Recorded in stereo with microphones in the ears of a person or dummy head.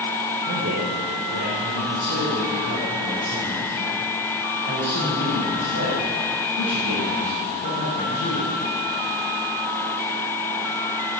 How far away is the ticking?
No ticking in this recording.